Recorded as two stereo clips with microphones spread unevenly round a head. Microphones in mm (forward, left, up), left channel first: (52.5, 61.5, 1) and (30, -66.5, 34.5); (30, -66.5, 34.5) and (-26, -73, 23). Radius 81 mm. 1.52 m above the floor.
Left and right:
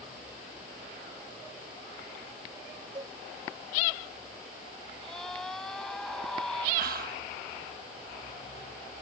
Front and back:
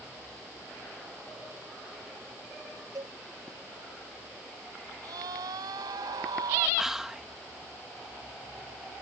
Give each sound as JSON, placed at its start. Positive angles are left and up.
{"t": 3.0, "sound": "a cowbell", "azimuth_deg": -165}
{"t": 5.0, "sound": "a scream", "azimuth_deg": 170}
{"t": 6.8, "sound": "whispering", "azimuth_deg": -90}